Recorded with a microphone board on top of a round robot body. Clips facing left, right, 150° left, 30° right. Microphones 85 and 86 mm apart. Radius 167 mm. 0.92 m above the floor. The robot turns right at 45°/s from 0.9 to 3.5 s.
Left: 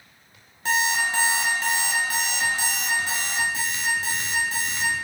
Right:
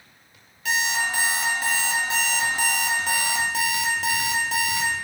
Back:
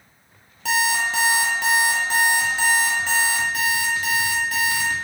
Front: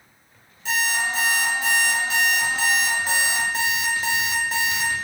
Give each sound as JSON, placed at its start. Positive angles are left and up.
{"t": 0.7, "sound": "an alarm clock", "azimuth_deg": 150, "distance_m": 0.7}